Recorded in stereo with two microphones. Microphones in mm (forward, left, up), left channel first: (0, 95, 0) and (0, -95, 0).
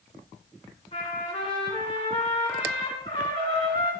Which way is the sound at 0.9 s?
30° left (ahead or behind).